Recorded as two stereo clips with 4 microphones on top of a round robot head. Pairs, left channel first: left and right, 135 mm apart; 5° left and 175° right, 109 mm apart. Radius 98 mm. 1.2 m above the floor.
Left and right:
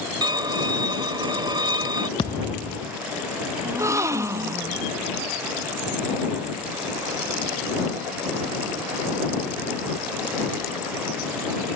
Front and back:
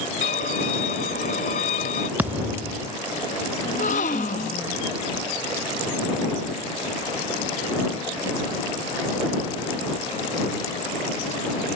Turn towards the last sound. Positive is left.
turn(degrees=-25)